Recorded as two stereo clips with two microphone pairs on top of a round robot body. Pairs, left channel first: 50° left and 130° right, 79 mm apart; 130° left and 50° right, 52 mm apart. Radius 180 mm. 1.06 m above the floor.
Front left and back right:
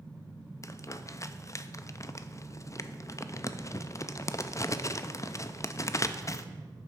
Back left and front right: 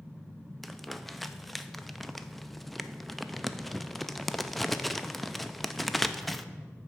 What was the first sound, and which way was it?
Crumpling, 40° left.